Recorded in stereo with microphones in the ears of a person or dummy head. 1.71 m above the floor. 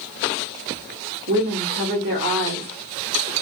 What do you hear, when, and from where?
1.3 s a woman speaking: 50° right (ahead or behind), 0.9 m